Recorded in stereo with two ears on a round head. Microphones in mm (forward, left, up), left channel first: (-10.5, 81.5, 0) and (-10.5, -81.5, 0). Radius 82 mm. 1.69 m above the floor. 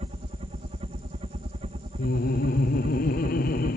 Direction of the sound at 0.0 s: 30° right (ahead or behind).